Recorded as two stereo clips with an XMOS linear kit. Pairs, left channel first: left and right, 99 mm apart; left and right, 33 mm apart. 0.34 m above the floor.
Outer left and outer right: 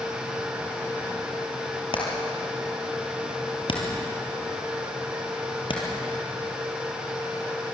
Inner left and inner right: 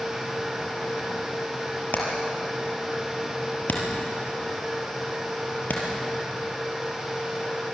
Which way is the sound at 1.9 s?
60° left (ahead or behind).